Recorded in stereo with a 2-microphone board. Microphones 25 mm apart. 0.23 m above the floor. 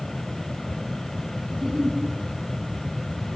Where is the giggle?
25° right (ahead or behind), 3.5 m.